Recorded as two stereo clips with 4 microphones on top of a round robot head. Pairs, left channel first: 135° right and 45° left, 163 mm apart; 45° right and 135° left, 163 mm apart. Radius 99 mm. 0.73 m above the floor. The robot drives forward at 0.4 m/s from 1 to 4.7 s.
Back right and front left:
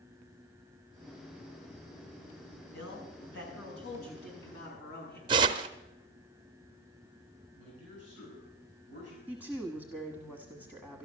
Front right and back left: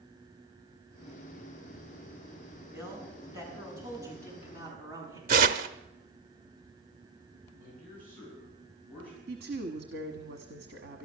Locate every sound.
2.7 s a man speaking: 150° right, 6 m; by 5.2 s 155° right, 6.5 m
5.3 s tearing paper: 105° left, 0.5 m
7.6 s a man speaking: 125° right, 9 m
9.3 s a woman speaking: 145° left, 1.5 m